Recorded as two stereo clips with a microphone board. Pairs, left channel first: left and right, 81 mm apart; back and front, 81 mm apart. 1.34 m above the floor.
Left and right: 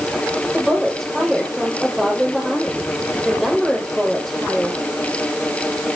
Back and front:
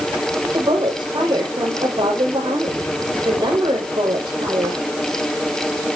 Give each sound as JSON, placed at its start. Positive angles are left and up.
{"t": 0.5, "sound": "a woman speaking", "azimuth_deg": 0, "distance_m": 5.5}